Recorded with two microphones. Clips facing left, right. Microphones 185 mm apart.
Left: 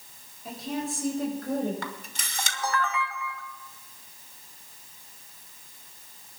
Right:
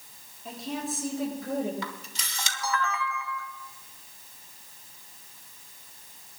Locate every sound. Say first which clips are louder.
0.5 s a woman speaking: left 2 dB; centre (ahead or behind), 6.5 m; by 1.7 s 10° right (ahead or behind), 6 m
1.8 s a camera shutter: left 1 dB; 50° left (ahead or behind), 1.3 m